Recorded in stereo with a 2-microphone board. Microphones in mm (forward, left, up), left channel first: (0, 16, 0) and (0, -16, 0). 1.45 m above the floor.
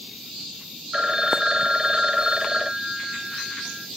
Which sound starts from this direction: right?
A phone ringing, at 0.9 s.